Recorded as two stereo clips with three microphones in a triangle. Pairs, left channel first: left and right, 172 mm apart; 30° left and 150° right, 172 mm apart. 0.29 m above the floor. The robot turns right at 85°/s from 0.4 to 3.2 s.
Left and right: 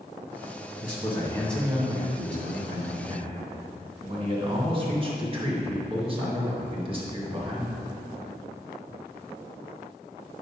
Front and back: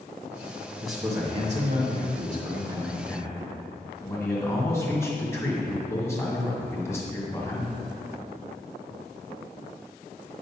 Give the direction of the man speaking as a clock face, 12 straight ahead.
8 o'clock.